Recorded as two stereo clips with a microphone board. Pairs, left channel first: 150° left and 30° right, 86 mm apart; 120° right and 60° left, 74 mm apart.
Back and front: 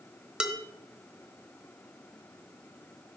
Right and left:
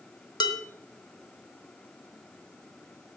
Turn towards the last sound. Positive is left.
turn(degrees=-110)